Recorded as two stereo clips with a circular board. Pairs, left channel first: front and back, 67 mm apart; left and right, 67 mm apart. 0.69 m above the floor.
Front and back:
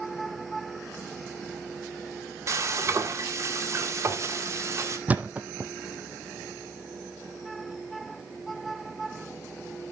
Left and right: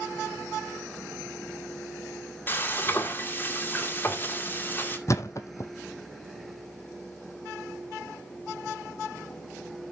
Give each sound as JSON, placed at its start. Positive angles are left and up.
{"t": 2.5, "sound": "frying", "azimuth_deg": 145, "distance_m": 1.9}
{"t": 5.1, "sound": "a thud", "azimuth_deg": 115, "distance_m": 1.1}